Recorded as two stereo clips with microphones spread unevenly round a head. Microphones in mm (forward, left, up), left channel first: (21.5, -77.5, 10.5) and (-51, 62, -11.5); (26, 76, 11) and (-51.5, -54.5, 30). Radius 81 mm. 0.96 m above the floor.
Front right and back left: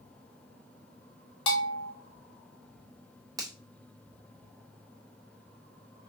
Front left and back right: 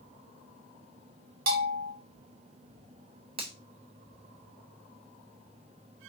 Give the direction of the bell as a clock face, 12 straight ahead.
4 o'clock.